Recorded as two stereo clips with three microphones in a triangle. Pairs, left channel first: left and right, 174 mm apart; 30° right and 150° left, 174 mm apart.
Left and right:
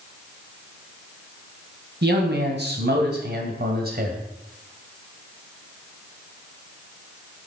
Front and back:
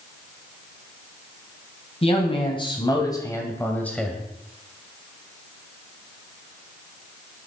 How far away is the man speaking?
About 3 m.